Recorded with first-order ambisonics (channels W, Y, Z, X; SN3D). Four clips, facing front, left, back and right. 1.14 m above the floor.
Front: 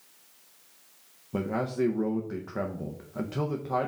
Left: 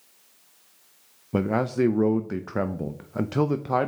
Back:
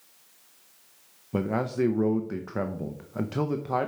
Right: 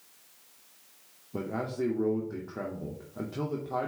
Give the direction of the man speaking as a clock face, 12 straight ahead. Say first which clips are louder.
Left 9 dB, back 2 dB; 9 o'clock.